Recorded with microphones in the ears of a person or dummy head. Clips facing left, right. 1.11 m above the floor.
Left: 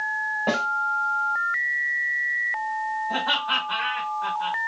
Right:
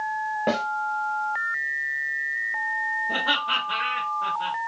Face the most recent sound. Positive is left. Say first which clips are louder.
# left 1 dB
turn(degrees=-50)  # may be behind; listen again after turning